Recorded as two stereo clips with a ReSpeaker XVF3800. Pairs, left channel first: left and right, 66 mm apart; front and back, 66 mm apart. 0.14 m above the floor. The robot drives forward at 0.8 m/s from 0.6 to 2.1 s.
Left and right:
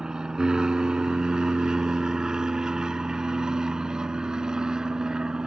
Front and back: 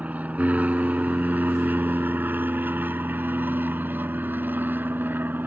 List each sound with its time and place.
0.0 s an aircraft: 150° right; by 5.5 s 160° right